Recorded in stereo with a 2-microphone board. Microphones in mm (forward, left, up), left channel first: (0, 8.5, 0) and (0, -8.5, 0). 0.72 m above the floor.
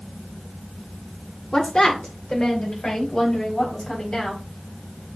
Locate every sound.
1.5 s a woman speaking: 50° left (ahead or behind), 2 m; by 4.4 s 40° left (ahead or behind), 5.5 m